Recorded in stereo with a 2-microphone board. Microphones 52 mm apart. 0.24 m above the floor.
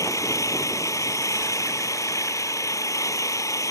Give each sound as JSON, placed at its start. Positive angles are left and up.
{"t": 0.0, "sound": "an engine running", "side_deg": 75}